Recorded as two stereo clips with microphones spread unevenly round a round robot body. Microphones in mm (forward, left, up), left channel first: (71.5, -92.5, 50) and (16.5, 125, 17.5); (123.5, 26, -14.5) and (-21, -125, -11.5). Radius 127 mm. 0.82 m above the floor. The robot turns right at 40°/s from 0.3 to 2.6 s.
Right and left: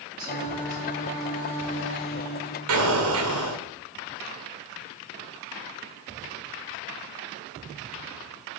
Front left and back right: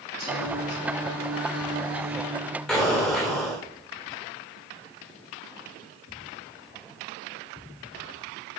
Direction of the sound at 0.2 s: 175° left.